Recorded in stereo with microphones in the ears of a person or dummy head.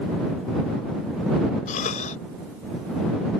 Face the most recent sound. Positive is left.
turn(degrees=45)  # may be behind; listen again after turning